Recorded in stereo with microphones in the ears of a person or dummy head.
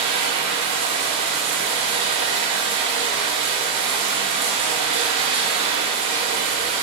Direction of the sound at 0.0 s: 30° right (ahead or behind).